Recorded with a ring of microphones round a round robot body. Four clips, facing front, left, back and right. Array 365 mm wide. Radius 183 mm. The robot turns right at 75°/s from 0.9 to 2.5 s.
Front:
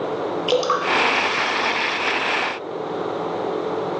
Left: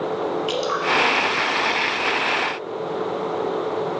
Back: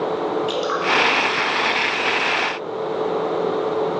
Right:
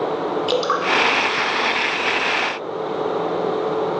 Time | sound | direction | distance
0.5 | dripping | 35° right | 1.1 m